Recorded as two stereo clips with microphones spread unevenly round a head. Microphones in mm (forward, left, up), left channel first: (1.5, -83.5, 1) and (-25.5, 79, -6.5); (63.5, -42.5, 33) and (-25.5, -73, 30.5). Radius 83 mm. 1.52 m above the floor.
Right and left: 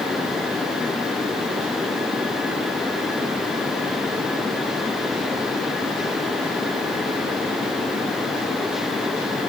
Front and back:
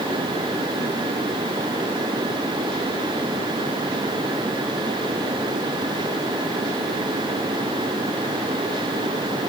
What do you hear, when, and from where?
Only background noise.